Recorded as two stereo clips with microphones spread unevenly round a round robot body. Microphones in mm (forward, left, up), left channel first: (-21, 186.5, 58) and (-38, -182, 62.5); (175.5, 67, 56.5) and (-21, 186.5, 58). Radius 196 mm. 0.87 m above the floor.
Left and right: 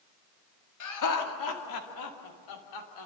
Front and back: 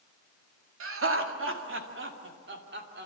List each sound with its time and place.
0.8 s laughter: 125° left, 2 m; by 3.1 s 110° left, 3 m